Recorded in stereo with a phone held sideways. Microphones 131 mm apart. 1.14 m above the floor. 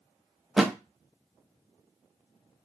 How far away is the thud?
About 0.6 m.